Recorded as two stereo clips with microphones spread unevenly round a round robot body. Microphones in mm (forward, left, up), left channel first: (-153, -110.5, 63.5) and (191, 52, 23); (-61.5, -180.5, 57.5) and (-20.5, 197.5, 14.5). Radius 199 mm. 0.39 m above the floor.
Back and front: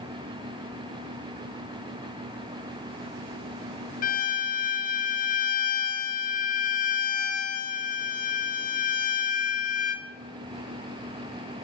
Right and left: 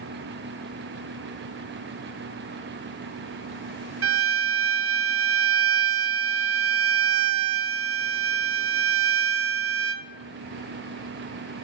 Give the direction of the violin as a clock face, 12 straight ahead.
8 o'clock.